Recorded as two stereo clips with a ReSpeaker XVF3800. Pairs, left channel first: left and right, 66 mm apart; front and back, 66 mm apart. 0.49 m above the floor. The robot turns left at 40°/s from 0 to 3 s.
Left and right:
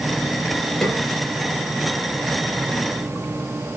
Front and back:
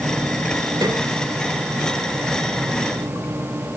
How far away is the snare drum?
About 3.5 m.